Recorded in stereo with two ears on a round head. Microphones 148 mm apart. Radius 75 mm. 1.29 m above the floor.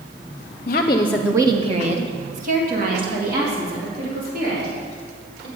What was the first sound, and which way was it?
A woman speaking, 50° left (ahead or behind).